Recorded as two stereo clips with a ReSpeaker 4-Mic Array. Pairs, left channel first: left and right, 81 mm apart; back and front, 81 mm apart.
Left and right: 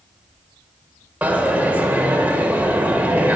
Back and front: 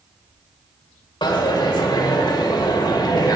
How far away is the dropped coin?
About 1.4 m.